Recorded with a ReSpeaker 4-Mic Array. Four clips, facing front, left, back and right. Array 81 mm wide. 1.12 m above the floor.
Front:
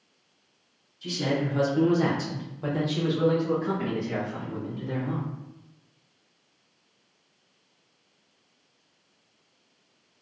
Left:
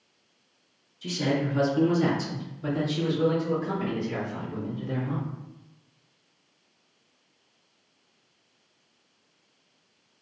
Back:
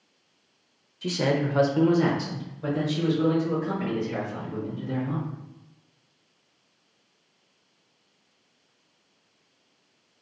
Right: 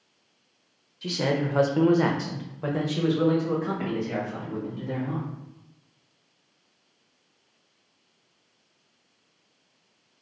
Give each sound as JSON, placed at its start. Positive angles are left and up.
{"t": 1.0, "sound": "a man speaking", "azimuth_deg": -155, "distance_m": 0.5}